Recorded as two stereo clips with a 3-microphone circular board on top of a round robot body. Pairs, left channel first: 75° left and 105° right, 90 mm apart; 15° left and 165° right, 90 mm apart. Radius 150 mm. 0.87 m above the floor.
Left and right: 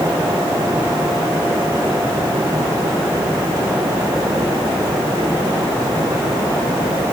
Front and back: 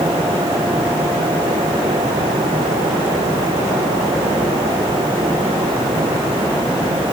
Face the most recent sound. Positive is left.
No sound to turn to.